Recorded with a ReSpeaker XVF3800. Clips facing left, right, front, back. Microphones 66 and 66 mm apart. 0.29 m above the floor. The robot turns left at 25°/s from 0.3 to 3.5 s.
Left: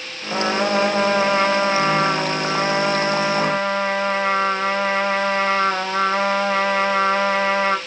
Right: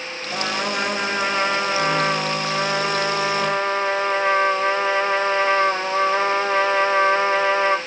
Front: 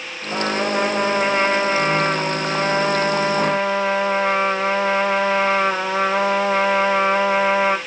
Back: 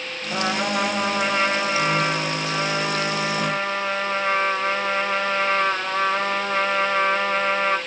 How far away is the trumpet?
About 4.5 m.